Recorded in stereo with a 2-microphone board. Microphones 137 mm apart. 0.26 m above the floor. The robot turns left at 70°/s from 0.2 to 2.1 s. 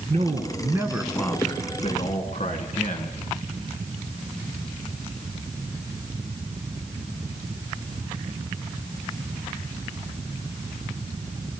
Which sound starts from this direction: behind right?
A man speaking, at 0.1 s.